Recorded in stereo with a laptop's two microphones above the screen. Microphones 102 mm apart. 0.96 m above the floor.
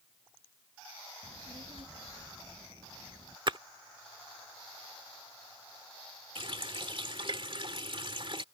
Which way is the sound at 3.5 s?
50° right (ahead or behind).